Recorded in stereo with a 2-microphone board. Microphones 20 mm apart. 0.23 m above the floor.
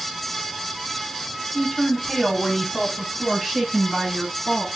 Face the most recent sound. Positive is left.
turn(degrees=-10)  # may be behind; listen again after turning